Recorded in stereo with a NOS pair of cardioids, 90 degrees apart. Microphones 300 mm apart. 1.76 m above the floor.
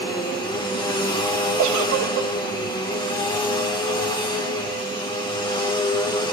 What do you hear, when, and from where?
0.0 s a machine running: 15° left, 2 m
1.6 s a giggle: 70° right, 1.0 m